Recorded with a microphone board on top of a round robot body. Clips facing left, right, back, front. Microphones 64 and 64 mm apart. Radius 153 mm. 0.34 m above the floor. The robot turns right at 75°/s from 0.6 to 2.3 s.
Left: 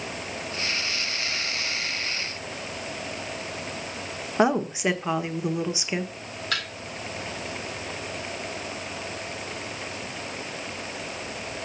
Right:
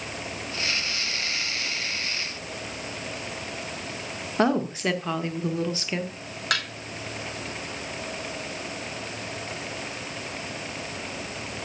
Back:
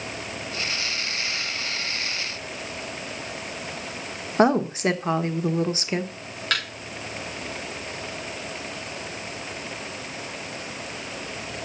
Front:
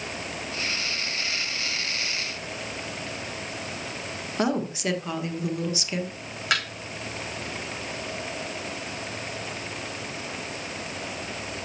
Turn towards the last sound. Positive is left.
turn(degrees=-75)